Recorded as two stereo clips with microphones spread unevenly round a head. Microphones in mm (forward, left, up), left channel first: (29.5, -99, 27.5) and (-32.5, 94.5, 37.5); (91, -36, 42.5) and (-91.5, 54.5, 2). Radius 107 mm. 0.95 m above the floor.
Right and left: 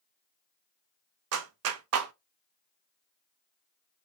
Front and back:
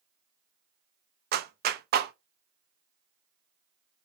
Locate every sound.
1.3 s a clap: 115° left, 0.5 m